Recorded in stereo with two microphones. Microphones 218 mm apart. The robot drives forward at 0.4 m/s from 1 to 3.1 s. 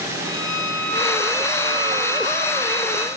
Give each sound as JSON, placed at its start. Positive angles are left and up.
{"t": 0.2, "sound": "a violin", "side_deg": 65, "distance_m": 2.5}